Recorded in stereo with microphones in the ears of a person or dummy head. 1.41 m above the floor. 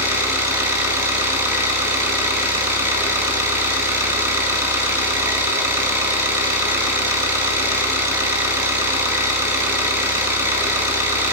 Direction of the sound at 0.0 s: 15° right (ahead or behind).